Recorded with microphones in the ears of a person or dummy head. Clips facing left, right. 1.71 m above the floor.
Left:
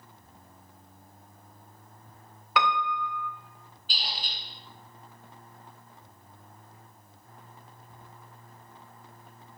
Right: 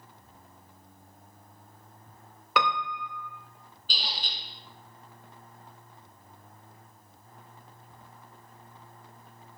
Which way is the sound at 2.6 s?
85° right.